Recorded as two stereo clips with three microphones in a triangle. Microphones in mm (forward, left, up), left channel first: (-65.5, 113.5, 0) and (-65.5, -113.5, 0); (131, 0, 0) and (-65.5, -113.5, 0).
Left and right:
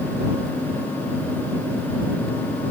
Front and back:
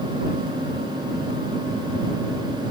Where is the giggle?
No giggle in this recording.